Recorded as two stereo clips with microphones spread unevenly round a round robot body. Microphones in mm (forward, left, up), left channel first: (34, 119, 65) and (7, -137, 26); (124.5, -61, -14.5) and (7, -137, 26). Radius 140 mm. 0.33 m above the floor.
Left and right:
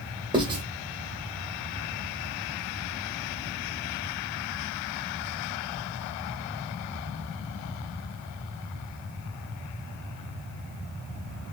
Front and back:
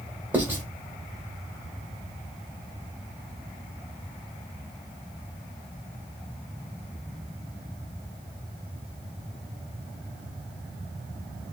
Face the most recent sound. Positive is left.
turn(degrees=-55)